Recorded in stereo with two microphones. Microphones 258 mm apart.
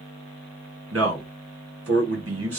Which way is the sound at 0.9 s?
60° right (ahead or behind).